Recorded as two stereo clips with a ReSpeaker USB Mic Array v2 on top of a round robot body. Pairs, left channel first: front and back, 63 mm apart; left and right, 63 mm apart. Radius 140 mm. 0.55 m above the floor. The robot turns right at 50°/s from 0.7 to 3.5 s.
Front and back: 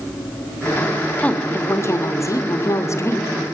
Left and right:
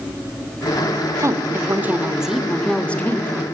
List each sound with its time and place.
1.2 s a woman speaking: 65° right, 1.5 m; by 3.4 s 45° left, 1.5 m